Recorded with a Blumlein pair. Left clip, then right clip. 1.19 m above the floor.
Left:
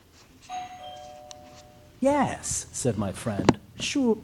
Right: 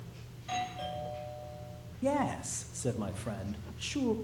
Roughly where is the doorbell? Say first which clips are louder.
Even; ahead right.